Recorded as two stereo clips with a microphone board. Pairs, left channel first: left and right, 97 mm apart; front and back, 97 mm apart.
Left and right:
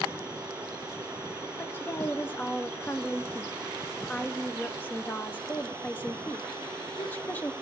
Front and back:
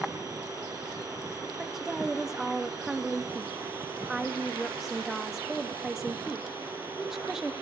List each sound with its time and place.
1.6 s a woman speaking: 100° left, 0.6 m